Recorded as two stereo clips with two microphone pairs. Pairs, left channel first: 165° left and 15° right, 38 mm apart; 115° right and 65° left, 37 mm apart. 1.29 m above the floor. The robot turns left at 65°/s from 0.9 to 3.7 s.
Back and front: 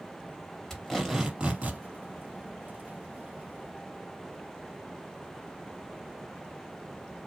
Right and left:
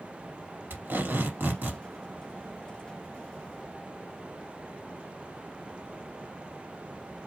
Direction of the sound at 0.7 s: 80° left.